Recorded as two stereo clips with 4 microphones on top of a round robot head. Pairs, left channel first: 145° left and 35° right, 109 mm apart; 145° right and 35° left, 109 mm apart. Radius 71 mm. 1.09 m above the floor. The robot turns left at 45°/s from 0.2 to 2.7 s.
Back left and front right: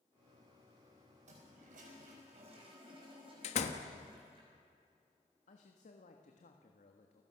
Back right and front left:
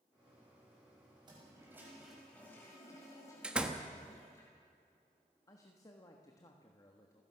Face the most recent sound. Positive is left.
turn(degrees=155)